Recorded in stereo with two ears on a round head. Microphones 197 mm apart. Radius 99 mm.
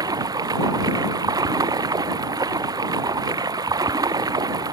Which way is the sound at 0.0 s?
20° right (ahead or behind).